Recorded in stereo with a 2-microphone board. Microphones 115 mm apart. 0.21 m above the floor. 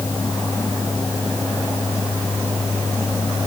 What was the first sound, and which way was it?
Only background noise.